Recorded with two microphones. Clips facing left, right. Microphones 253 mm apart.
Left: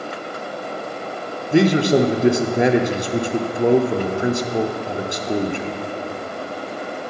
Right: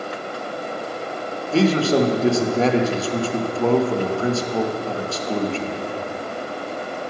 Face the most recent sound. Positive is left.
turn(degrees=15)  # may be behind; listen again after turning